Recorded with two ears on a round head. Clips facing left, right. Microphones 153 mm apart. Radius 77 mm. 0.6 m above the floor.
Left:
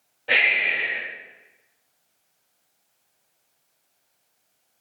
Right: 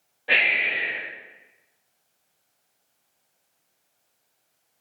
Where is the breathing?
15° right (ahead or behind), 1.4 m.